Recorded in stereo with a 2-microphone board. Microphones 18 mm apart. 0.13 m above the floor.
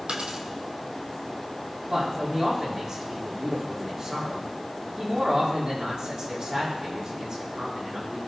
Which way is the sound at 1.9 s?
45° right (ahead or behind).